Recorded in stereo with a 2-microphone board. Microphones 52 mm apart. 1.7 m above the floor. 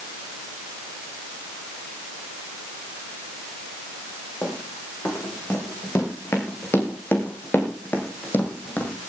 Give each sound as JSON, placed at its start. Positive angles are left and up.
{"t": 4.4, "sound": "running footsteps", "side_deg": 65, "distance_m": 5.5}